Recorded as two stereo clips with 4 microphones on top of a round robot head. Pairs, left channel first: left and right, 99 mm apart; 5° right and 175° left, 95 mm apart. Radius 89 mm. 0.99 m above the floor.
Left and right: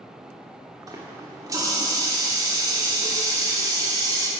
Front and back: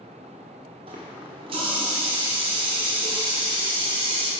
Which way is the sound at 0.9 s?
145° right.